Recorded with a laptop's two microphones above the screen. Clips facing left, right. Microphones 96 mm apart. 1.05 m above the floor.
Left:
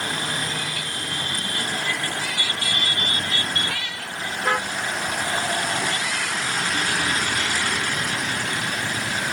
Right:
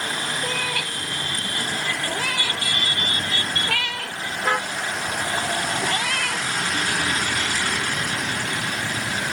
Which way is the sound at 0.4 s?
70° right (ahead or behind).